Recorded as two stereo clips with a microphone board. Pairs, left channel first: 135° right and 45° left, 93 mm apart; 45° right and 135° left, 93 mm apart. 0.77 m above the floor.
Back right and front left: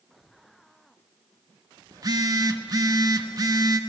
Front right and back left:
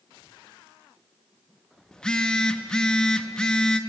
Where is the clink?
I don't hear a clink.